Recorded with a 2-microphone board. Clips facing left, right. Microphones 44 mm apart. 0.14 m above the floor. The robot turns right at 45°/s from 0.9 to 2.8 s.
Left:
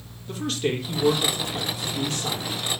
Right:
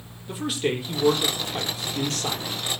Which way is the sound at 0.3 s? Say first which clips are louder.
Even; 170° right.